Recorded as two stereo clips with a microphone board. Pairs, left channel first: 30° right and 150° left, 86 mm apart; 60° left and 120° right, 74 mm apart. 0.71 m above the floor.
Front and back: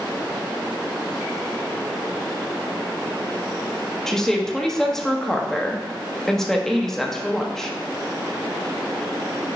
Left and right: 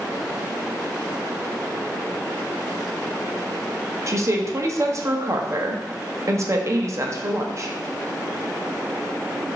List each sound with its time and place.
4.1 s a woman speaking: 115° right, 0.7 m